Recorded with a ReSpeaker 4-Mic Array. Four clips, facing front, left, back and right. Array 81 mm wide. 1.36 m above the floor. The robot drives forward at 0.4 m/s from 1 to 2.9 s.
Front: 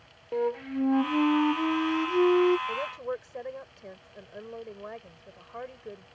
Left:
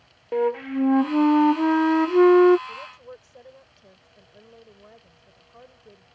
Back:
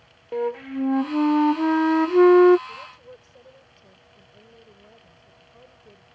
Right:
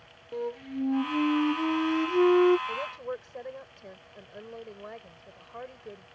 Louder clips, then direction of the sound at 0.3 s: Left 10 dB, back 2 dB; 100° left.